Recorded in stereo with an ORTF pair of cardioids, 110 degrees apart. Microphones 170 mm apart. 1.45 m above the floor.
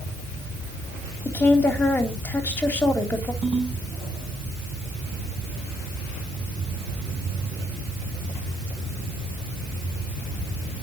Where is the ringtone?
30° right, 8.5 m.